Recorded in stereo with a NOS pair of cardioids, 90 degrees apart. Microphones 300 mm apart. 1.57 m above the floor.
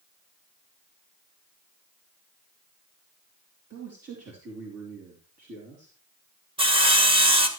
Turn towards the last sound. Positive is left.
turn(degrees=-15)